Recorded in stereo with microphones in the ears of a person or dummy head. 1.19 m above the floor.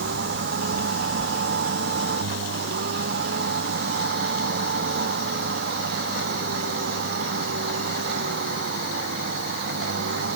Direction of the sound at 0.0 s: 65° right (ahead or behind).